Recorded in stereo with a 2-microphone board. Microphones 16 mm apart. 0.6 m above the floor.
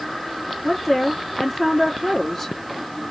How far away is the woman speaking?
About 1.3 m.